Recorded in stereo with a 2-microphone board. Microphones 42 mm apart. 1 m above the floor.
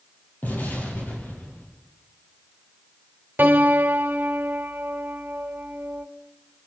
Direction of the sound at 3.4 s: 50° right (ahead or behind).